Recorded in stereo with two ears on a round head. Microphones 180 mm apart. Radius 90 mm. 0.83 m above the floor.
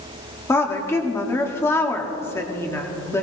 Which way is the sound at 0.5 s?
15° left (ahead or behind).